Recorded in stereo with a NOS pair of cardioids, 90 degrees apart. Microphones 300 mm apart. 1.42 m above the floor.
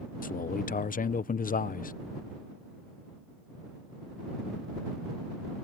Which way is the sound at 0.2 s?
30° left.